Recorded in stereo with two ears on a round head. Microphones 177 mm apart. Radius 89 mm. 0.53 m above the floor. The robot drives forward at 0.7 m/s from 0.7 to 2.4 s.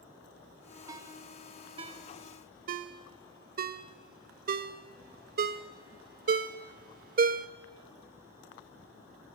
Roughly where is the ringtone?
Centre.